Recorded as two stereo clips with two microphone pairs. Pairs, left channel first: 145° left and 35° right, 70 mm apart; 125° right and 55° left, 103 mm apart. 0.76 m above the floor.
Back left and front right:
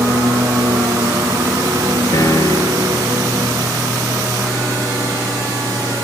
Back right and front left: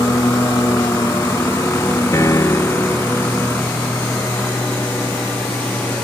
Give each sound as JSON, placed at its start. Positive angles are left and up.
{"t": 0.0, "sound": "a lawn mower", "azimuth_deg": -65}
{"t": 2.1, "sound": "a piano", "azimuth_deg": 180}